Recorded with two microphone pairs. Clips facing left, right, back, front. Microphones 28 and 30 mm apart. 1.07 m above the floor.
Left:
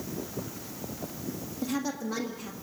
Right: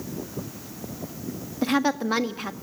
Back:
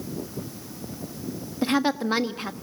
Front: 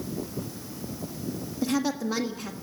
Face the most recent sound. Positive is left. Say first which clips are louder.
# right 9 dB, back 4 dB
turn(degrees=-125)